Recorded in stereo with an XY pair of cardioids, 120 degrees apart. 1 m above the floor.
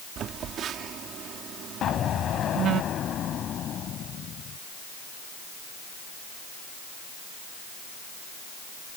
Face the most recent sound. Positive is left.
turn(degrees=55)